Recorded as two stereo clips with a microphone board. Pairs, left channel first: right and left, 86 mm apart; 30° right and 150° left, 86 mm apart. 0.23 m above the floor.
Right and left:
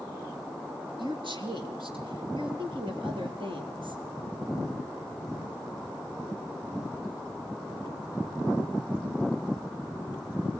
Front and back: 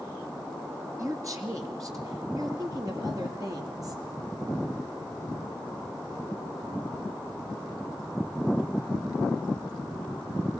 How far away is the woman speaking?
About 3.5 m.